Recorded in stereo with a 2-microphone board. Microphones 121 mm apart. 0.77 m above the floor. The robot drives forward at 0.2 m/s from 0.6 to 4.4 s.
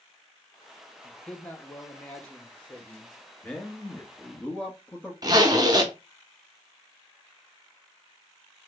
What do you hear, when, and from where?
1.0 s a man speaking: 15° left (ahead or behind), 0.7 m; by 3.2 s 10° left (ahead or behind), 0.9 m
3.4 s a man speaking: 10° left (ahead or behind), 1.2 m
5.2 s a zipper: 35° right (ahead or behind), 0.7 m